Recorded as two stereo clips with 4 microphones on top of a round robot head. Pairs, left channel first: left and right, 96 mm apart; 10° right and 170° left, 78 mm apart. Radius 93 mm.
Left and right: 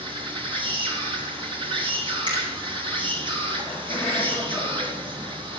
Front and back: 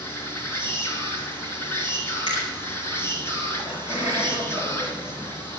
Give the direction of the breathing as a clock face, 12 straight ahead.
I don't hear breathing.